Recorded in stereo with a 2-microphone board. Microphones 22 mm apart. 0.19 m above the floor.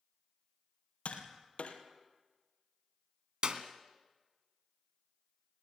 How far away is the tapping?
About 3 m.